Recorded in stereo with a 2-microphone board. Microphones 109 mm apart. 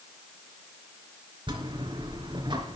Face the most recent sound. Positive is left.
turn(degrees=-40)  # may be behind; listen again after turning